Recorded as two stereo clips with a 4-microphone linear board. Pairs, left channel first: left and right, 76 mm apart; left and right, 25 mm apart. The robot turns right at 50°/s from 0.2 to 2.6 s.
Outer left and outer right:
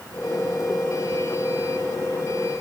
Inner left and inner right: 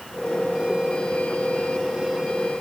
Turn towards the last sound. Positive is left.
No sound to turn to.